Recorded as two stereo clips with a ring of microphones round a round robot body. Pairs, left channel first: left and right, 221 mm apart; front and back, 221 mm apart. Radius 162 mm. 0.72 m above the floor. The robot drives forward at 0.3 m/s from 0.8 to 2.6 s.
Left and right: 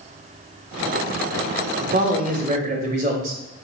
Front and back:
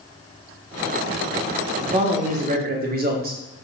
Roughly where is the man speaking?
Behind right.